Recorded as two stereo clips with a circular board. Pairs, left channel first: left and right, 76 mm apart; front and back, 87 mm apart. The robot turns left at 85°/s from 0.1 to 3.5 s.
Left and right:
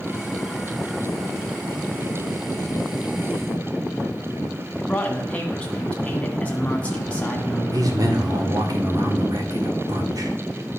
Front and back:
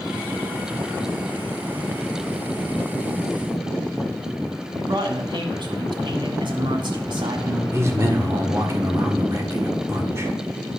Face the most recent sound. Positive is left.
turn(degrees=-120)